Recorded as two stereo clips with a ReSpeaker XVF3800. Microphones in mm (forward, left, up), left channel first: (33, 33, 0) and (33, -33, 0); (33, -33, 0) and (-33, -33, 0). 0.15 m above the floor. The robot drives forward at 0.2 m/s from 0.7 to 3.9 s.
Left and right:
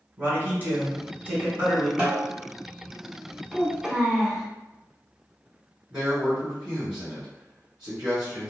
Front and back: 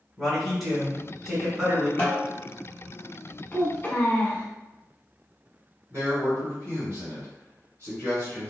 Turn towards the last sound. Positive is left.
turn(degrees=-170)